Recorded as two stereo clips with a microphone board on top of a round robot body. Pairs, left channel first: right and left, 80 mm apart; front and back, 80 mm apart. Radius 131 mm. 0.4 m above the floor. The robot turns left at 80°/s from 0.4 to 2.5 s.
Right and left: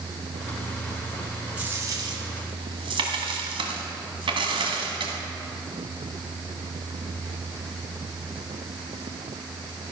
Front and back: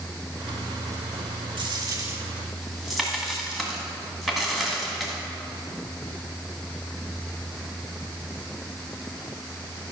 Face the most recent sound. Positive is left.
turn(degrees=90)